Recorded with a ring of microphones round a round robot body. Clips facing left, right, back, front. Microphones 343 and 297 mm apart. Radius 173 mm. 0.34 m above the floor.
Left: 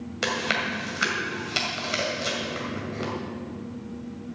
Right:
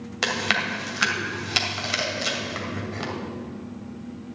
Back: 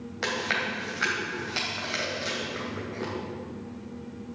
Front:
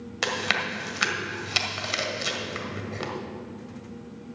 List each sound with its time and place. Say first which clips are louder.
0.2 s chewing: even, front 1 dB; 20° right, 1.9 m